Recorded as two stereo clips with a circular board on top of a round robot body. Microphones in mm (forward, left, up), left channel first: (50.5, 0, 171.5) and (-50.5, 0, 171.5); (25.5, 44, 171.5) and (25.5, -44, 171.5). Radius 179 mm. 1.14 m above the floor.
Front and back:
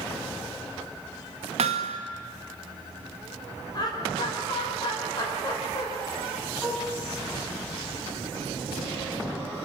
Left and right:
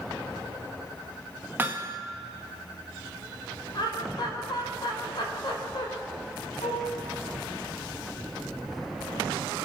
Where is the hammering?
160° right, 1.0 m.